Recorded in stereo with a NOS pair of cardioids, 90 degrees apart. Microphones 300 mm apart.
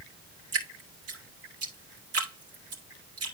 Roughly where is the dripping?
Ahead right.